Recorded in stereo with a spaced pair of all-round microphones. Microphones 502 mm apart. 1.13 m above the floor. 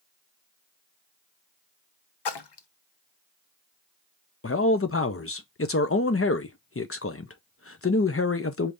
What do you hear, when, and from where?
2.2 s a splash: 55° left (ahead or behind), 0.5 m
4.4 s a man speaking: 30° left (ahead or behind), 0.5 m